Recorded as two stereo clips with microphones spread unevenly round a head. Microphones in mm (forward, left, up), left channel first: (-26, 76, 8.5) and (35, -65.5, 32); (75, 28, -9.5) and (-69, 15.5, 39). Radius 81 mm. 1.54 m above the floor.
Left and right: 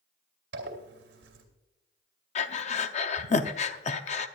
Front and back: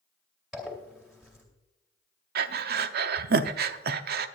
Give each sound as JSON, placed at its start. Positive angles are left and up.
{"t": 0.5, "sound": "a zipper", "azimuth_deg": -90, "distance_m": 2.5}
{"t": 2.4, "sound": "breathing", "azimuth_deg": 160, "distance_m": 0.7}